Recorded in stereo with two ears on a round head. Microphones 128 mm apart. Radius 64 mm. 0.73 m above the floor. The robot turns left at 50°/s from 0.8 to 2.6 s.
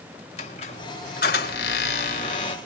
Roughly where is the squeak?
Behind left.